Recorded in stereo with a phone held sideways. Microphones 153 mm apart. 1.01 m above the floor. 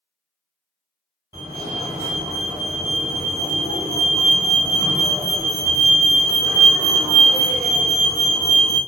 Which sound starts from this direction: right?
A fire alarm, at 1.3 s.